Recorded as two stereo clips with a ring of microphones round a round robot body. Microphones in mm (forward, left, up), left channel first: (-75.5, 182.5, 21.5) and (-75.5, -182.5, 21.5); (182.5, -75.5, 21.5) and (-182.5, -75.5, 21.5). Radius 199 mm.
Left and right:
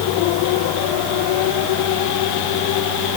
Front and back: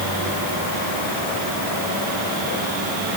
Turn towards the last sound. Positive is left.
No sound to turn to.